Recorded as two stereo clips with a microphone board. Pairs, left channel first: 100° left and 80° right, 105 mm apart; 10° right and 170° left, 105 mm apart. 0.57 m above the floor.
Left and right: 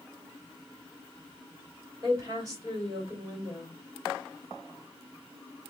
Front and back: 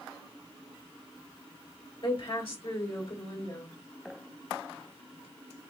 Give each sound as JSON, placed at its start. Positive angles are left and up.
{"t": 2.0, "sound": "a woman speaking", "azimuth_deg": -25, "distance_m": 2.5}